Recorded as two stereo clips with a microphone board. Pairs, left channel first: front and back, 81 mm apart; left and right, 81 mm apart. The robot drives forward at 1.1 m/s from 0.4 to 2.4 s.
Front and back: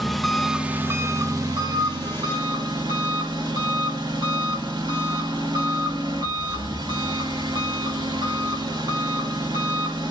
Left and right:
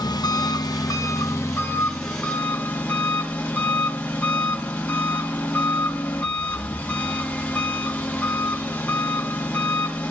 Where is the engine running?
90° left, 1.0 m; by 10.1 s 160° left, 2.5 m.